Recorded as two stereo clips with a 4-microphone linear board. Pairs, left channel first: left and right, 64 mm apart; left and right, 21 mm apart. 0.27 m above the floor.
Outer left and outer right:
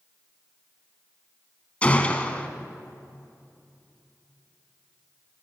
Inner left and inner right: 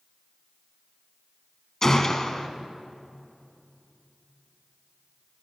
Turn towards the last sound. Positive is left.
turn(degrees=20)  # may be behind; listen again after turning